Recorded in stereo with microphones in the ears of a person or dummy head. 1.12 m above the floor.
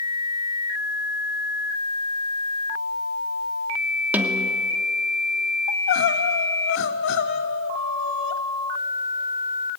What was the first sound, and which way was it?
A snare drum, 5° right (ahead or behind).